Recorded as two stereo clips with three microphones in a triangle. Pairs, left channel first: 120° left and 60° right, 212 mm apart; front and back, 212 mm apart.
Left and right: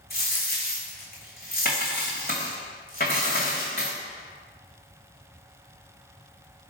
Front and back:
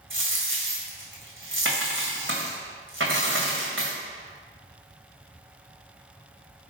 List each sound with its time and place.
0.1 s a dropped coin: 165° left, 1.3 m